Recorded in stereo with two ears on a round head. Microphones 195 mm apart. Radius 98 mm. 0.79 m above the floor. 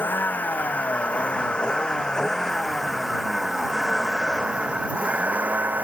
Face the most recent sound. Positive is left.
turn(degrees=-10)  # may be behind; listen again after turning